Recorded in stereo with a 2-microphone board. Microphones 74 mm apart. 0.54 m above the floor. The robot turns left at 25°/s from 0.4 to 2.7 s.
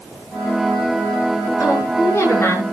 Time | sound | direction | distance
1.6 | a woman speaking | 55° left (ahead or behind) | 7.5 m